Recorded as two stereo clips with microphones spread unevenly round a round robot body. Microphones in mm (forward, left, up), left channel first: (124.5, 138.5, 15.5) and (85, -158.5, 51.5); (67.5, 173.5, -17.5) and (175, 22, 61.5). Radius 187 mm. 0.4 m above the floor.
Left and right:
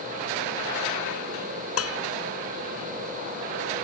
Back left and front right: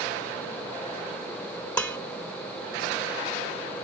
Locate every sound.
1.8 s dishes clattering: 45° left